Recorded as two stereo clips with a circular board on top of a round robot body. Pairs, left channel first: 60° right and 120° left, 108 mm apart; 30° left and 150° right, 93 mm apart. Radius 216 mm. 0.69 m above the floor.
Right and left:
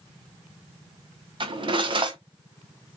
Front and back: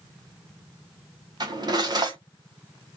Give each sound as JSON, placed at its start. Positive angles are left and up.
{"t": 1.4, "sound": "cutlery clinking", "azimuth_deg": 165, "distance_m": 0.9}